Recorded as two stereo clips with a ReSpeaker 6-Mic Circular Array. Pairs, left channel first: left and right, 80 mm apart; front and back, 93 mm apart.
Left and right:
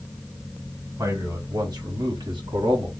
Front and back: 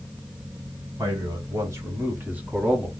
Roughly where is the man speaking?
Behind right.